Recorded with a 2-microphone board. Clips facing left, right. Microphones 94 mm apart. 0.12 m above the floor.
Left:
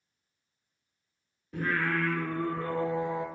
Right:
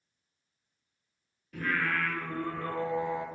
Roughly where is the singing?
Left.